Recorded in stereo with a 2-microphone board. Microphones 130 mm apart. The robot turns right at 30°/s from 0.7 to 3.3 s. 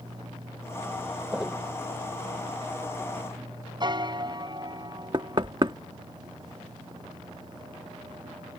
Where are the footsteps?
5° right (ahead or behind); by 1.6 s centre (ahead or behind).